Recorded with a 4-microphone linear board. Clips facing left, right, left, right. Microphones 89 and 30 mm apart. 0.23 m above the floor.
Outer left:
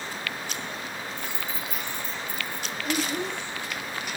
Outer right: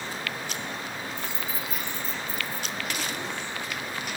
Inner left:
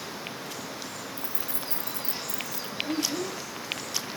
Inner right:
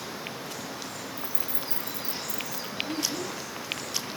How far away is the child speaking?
About 3.5 m.